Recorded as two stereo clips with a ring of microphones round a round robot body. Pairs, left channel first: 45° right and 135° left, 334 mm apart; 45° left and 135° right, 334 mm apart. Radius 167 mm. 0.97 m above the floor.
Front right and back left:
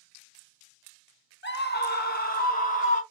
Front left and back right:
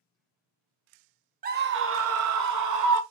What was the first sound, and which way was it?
A scream, 85° right.